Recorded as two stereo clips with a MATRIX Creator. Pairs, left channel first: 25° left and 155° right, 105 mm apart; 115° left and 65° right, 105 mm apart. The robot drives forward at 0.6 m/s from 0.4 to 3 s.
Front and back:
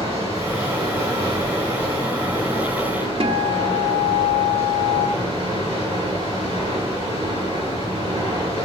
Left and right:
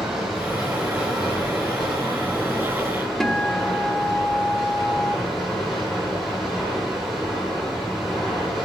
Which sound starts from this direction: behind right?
Running water, at 0.0 s.